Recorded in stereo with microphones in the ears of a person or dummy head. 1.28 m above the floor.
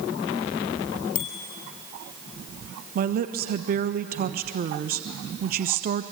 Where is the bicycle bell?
30° left (ahead or behind), 3 m.